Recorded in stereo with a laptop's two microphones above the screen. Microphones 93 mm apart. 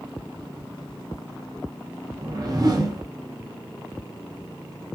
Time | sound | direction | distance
2.2 | a whoosh | 45° right (ahead or behind) | 0.6 m